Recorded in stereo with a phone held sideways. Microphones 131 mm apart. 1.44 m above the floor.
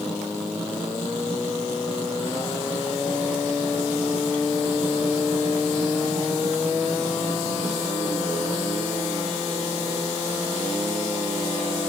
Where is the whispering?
I don't hear whispering.